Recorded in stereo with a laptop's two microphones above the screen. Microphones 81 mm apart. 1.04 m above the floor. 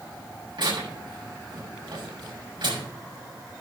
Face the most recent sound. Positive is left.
turn(degrees=-80)